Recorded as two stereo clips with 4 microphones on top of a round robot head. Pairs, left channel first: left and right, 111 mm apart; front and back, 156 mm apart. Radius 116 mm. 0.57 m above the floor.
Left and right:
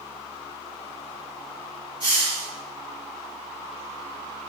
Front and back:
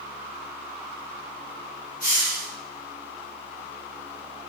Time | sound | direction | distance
2.0 | a hiss | 45° right | 1.9 m